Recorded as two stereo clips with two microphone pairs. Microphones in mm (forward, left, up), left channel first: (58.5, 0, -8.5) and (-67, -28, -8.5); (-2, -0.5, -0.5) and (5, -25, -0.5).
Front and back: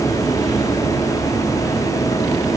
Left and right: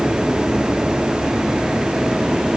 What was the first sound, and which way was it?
Only background noise.